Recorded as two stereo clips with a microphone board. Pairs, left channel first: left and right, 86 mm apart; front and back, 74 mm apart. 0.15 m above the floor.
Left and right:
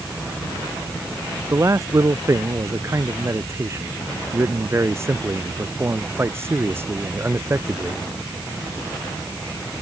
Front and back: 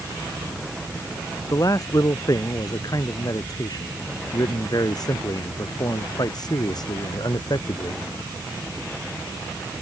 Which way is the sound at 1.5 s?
35° right.